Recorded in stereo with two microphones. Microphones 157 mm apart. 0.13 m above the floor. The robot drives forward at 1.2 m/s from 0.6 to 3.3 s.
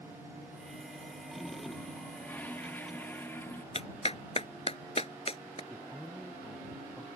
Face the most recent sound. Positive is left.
turn(degrees=5)  # may be behind; listen again after turning